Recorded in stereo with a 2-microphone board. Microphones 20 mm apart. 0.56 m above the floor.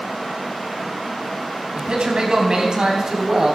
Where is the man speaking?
50° right (ahead or behind), 3.5 m; by 3.5 s 30° right (ahead or behind), 3 m.